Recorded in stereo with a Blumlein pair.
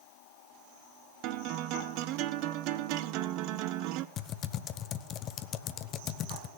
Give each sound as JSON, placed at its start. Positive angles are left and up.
{"t": 1.2, "sound": "a guitar", "azimuth_deg": -40, "distance_m": 0.6}
{"t": 4.2, "sound": "typing on a keyboard", "azimuth_deg": 30, "distance_m": 0.7}